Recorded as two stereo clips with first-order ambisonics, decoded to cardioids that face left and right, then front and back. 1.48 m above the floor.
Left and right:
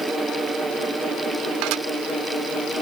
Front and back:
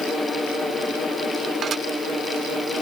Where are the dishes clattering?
120° right.